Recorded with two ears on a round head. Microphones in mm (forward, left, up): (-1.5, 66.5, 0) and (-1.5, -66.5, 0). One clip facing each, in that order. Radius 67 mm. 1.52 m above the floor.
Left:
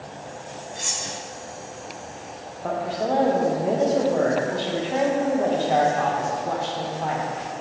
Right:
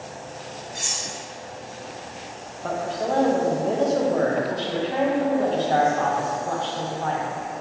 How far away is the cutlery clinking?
About 0.8 m.